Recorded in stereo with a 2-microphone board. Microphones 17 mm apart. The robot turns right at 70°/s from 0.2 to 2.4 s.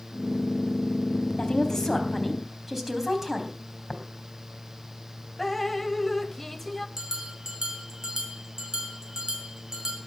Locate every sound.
1.4 s a woman speaking: 120° left, 3.5 m; by 3.6 s 170° right, 3.5 m
3.9 s tapping: 30° left (ahead or behind), 3.5 m
5.4 s dripping: 20° left (ahead or behind), 0.9 m
7.0 s a bell: 30° right (ahead or behind), 3 m